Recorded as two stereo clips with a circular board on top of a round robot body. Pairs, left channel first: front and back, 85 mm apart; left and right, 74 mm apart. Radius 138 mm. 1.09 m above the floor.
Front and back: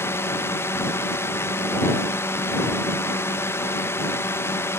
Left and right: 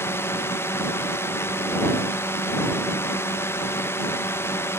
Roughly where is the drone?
Ahead left.